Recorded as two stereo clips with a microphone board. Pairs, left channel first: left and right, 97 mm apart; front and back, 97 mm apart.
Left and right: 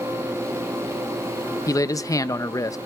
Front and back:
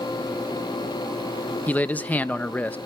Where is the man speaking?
65° left, 0.6 m.